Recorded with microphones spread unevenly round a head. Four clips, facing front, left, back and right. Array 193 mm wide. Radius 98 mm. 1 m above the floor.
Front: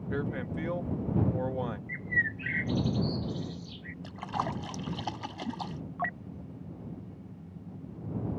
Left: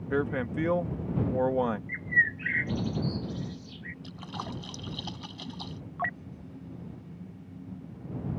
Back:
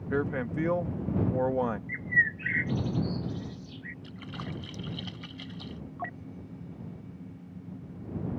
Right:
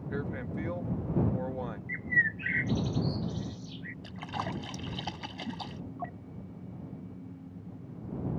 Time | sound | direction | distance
0.1 | a man speaking | 130° left | ?
1.9 | a bird | 35° right | ?
4.0 | a splash | 20° right | ?